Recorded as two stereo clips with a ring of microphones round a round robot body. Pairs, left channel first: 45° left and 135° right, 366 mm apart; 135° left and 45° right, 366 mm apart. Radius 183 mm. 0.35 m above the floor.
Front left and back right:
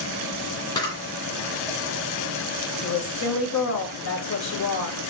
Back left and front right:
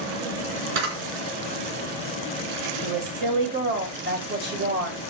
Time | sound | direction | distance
0.8 | a camera shutter | 35° right | 3 m
2.8 | a woman speaking | 10° left | 2 m